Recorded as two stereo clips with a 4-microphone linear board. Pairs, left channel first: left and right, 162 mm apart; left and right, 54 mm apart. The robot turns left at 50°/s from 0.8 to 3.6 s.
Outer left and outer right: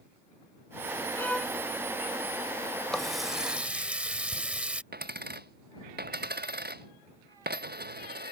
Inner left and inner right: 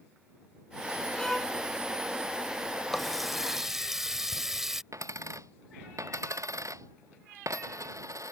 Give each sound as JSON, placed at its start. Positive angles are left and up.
{"t": 1.1, "sound": "a violin", "side_deg": 15}
{"t": 2.9, "sound": "a running tap", "side_deg": 5}
{"t": 4.9, "sound": "a dropped coin", "side_deg": -80}